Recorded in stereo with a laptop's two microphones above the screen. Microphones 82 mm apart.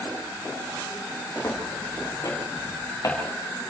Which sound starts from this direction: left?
Footsteps, at 1.4 s.